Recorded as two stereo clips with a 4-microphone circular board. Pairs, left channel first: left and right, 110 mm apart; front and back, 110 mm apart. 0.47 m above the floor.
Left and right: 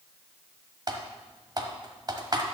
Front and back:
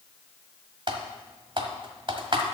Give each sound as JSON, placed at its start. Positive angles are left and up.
{"t": 0.9, "sound": "typing on a keyboard", "azimuth_deg": -140, "distance_m": 1.2}